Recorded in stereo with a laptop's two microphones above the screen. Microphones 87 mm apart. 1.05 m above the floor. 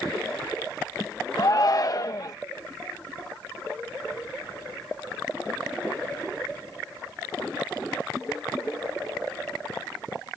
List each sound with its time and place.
1.4 s a shout: 45° left (ahead or behind)